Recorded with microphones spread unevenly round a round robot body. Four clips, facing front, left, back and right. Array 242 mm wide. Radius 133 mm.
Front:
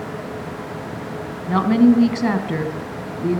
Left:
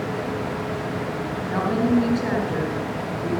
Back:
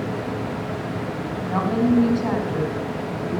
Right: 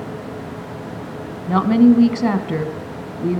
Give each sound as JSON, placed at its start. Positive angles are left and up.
{"t": 1.5, "sound": "a woman speaking", "azimuth_deg": -60, "distance_m": 4.0}